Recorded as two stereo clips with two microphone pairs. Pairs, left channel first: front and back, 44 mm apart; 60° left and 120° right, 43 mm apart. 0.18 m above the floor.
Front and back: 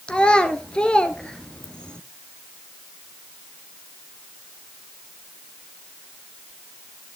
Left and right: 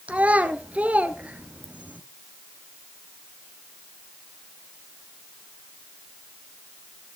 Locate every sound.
0.1 s a child speaking: 65° right, 1.5 m